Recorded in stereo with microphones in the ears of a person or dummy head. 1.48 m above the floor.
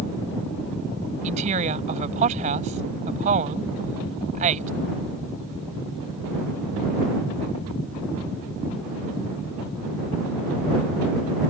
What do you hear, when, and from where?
1.2 s a woman speaking: 40° right (ahead or behind)